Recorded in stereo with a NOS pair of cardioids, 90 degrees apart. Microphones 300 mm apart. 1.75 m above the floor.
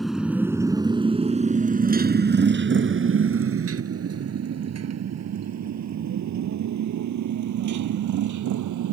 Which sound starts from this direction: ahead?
A motorcycle, at 0.0 s.